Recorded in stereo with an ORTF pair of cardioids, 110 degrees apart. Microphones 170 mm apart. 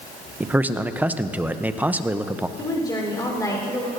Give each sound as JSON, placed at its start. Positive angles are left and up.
{"t": 0.4, "sound": "a man speaking", "azimuth_deg": -10, "distance_m": 0.6}
{"t": 2.6, "sound": "a woman speaking", "azimuth_deg": 20, "distance_m": 3.5}